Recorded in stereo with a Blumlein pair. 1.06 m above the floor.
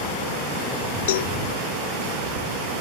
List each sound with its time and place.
1.1 s a cowbell: 55° left